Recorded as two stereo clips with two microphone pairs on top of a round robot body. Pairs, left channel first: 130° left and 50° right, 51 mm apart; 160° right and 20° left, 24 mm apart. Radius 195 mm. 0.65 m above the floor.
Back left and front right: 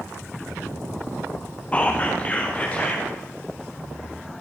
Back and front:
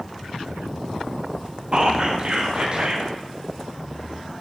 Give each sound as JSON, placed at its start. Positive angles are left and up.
{"t": 1.7, "sound": "whispering", "azimuth_deg": 65, "distance_m": 1.8}